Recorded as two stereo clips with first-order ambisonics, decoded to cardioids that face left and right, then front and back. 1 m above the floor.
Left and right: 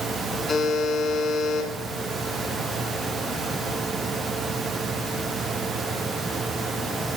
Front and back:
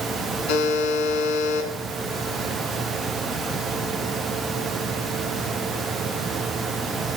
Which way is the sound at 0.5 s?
20° left.